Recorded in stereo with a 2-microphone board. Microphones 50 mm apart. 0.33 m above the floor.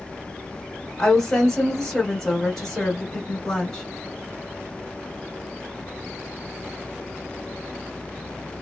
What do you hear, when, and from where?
1.0 s a woman speaking: 10° left (ahead or behind), 1.3 m